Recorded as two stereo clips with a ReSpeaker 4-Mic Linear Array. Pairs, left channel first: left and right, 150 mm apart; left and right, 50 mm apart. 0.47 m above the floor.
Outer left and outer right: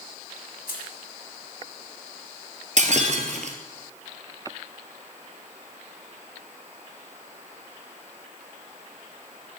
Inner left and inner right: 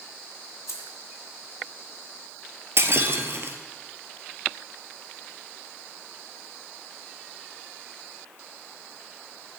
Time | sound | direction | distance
0.7 | keys jangling | 80° left | 2 m
2.8 | breaking glass | 55° right (ahead or behind) | 1.5 m